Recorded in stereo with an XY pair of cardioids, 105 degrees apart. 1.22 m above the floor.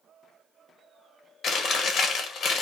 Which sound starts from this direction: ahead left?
Chewing, at 1.4 s.